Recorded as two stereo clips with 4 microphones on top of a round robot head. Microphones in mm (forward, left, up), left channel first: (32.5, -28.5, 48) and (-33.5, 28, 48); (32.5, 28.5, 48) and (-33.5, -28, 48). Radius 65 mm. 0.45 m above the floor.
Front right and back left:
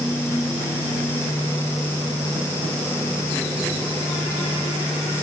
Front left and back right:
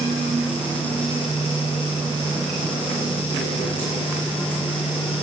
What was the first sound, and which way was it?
Only background noise.